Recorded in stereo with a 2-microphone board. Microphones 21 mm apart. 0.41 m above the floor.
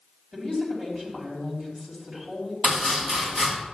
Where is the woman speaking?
40° right (ahead or behind), 3 m.